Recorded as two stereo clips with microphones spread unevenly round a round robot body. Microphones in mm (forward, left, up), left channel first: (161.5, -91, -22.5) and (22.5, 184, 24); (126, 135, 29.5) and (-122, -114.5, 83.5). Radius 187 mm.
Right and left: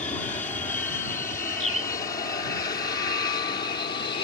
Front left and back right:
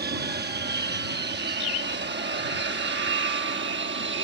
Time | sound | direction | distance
0.0 | an aircraft | 110° right | ?
1.6 | a bird | 25° left | ?